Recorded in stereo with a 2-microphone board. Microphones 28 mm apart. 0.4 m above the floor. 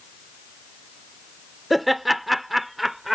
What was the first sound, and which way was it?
Laughter, centre (ahead or behind).